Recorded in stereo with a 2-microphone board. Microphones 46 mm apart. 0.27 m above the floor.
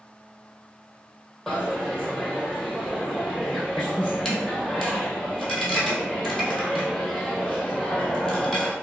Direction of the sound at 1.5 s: 10° left (ahead or behind).